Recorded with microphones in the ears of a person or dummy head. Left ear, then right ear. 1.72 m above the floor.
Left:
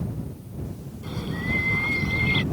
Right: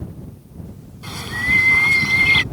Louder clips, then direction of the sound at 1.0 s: Right 10 dB; 60° right (ahead or behind).